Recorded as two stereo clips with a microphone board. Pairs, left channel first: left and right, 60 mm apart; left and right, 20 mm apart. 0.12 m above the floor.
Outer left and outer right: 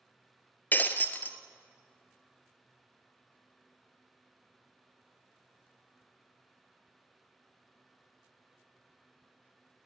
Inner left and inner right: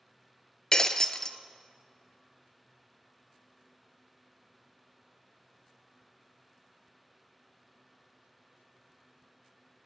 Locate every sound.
0.7 s breaking glass: 35° left (ahead or behind), 0.5 m